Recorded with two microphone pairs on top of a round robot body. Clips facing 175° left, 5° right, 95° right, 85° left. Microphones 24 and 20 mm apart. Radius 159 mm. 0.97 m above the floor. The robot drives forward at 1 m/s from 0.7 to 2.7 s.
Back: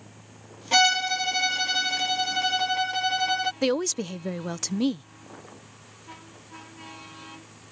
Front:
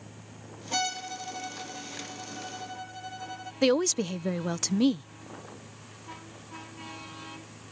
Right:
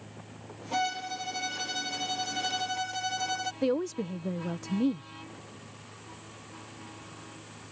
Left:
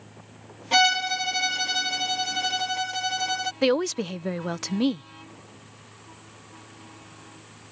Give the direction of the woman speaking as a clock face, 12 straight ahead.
9 o'clock.